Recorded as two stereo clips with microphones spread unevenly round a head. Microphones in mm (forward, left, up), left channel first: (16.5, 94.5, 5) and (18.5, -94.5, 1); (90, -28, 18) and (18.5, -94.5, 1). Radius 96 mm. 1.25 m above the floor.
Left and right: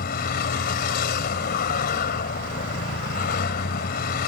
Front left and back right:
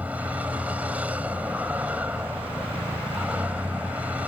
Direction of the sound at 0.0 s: 135° left.